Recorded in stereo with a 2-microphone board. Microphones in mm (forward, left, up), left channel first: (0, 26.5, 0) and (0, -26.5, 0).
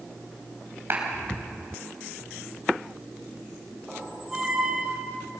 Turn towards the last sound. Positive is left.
turn(degrees=-15)  # may be behind; listen again after turning